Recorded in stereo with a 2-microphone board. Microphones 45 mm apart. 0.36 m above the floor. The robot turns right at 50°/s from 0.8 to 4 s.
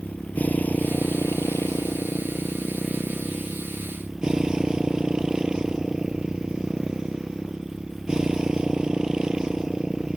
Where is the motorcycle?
40° left; by 10.2 s 160° right.